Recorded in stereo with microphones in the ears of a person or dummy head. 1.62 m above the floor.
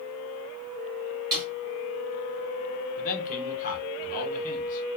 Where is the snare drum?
15° right (ahead or behind), 1.4 m.